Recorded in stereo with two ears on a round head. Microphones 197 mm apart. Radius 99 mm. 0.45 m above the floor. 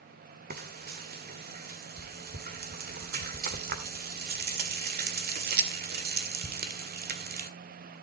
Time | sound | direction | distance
0.5 | frying | 45° right (ahead or behind) | 1.9 m